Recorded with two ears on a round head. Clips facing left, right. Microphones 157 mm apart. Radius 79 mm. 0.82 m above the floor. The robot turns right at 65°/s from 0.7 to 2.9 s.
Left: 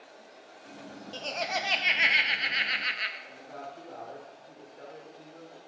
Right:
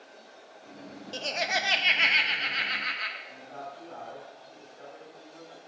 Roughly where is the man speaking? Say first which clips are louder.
Right 1 dB; left.